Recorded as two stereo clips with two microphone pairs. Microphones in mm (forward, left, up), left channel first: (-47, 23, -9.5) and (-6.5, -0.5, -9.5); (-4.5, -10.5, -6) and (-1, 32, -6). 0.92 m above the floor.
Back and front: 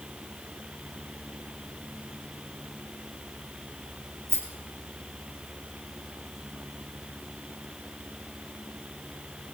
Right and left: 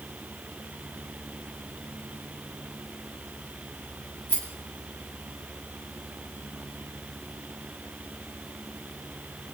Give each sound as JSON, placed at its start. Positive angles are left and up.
{"t": 4.3, "sound": "a rattle", "azimuth_deg": -50, "distance_m": 8.0}